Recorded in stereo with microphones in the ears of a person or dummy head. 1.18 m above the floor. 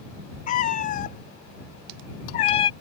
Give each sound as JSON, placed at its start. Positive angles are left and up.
{"t": 0.5, "sound": "a cat meowing", "side_deg": 45}